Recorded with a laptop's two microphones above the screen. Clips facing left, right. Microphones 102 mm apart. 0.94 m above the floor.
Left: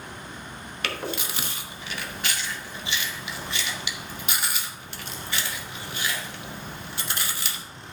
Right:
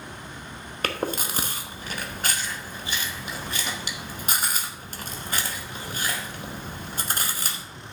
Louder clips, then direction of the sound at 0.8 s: Right 4 dB; 40° right (ahead or behind).